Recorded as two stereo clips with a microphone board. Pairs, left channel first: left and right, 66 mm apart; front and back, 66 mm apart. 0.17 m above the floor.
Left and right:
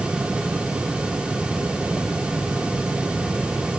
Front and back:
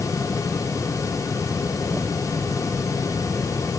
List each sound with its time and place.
Only background noise.